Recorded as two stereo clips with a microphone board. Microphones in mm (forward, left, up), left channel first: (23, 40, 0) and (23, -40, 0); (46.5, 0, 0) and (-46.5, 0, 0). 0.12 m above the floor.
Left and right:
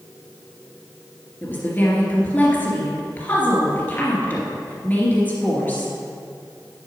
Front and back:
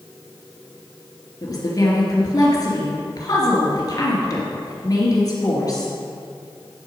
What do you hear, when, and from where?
1.4 s a woman speaking: 30° left, 2.5 m